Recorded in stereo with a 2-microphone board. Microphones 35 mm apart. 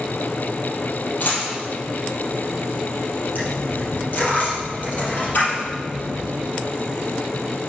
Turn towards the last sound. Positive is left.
turn(degrees=50)  # may be behind; listen again after turning